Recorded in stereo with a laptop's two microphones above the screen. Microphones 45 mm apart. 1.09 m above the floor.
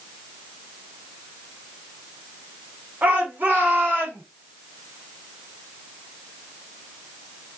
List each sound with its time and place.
3.0 s a shout: 40° right (ahead or behind), 1.8 m; by 4.2 s 50° right (ahead or behind), 2.5 m